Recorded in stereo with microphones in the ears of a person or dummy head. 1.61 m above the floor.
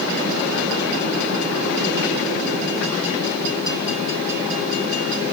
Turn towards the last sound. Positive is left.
No sound to turn to.